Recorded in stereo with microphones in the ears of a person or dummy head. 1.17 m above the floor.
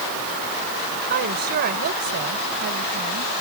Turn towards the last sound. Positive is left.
turn(degrees=-50)  # may be behind; listen again after turning